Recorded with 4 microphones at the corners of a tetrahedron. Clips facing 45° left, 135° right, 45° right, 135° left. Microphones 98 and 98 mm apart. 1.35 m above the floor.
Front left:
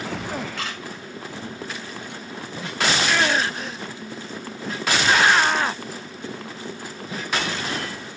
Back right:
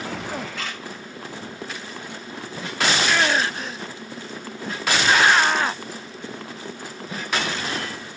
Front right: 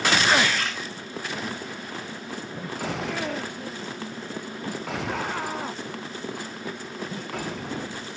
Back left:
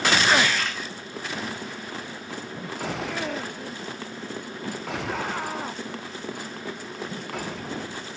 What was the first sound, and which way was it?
A camera shutter, 45° left.